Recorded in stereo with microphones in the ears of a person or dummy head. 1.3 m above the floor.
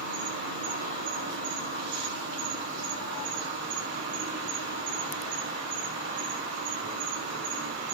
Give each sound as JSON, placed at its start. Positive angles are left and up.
{"t": 0.0, "sound": "an insect", "side_deg": -65, "distance_m": 5.0}